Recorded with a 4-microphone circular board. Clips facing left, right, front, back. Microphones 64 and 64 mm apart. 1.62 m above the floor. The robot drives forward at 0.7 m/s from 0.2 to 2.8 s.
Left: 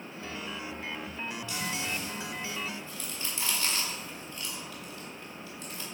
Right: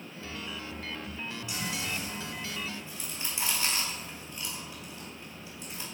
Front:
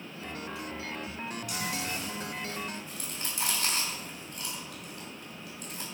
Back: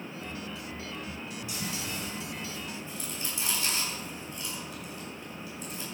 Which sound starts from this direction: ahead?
Chewing, at 1.5 s.